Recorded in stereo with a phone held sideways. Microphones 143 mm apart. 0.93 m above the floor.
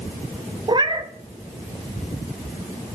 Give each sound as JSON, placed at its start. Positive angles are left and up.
{"t": 0.7, "sound": "a cat meowing", "side_deg": -35, "distance_m": 0.5}